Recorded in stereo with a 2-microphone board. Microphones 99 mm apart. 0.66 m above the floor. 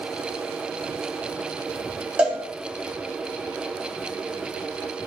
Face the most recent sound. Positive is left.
turn(degrees=-10)  # may be behind; listen again after turning